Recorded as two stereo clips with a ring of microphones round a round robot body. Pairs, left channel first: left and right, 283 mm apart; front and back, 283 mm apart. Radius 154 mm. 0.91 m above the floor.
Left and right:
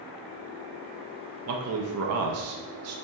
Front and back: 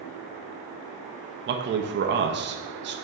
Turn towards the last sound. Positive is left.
turn(degrees=-130)